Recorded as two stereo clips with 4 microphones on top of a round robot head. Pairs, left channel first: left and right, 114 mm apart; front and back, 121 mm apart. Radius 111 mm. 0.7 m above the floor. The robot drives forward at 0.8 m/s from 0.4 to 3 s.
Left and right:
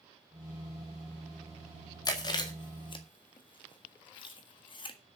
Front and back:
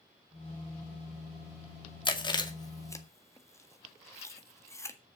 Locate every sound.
2.0 s chewing: 40° left, 2 m; by 5.0 s 60° left, 1.7 m